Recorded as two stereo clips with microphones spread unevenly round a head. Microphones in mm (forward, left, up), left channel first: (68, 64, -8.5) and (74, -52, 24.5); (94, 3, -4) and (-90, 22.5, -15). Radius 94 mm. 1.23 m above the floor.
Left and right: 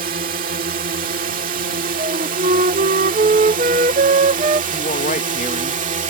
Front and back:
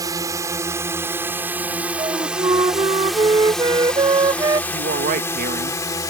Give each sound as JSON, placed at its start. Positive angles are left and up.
{"t": 0.0, "sound": "a drone", "azimuth_deg": -115}
{"t": 2.0, "sound": "a flute", "azimuth_deg": -125}
{"t": 4.7, "sound": "a woman speaking", "azimuth_deg": 130}